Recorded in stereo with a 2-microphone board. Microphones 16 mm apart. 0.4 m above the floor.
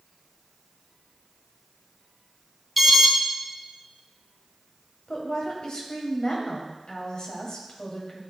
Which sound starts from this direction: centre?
An alarm, at 2.8 s.